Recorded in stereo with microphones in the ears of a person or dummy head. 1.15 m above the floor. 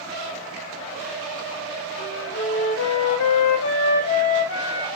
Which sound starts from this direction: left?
A flute, at 2.0 s.